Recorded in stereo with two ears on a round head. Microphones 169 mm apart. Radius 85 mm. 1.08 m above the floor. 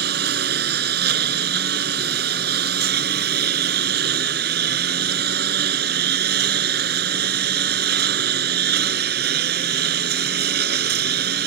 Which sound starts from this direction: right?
A lawn mower, at 0.0 s.